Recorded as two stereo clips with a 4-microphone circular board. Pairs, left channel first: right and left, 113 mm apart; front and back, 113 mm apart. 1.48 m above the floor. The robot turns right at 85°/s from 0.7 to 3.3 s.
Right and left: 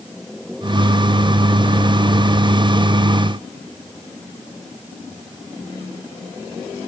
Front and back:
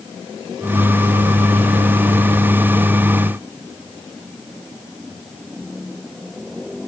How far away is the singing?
No singing in this recording.